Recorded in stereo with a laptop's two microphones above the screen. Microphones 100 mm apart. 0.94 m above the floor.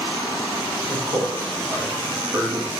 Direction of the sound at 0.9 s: 65° right (ahead or behind).